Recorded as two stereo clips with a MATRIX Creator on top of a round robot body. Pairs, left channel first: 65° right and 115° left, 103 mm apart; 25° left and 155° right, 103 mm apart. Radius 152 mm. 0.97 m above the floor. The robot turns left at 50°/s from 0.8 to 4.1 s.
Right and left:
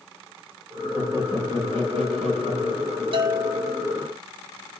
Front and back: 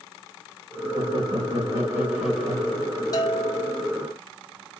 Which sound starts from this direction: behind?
Laughter, at 0.9 s.